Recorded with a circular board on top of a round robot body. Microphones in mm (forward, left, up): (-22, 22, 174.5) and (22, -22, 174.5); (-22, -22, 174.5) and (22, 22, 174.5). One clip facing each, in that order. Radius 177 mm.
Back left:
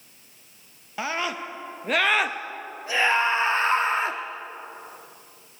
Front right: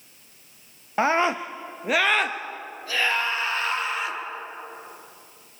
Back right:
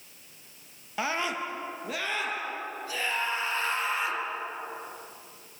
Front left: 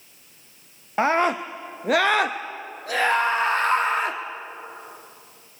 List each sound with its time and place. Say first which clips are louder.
1.0 s a scream: front right 7 dB, front left 10 dB; straight ahead, 0.9 m; by 4.2 s 85° left, 1.8 m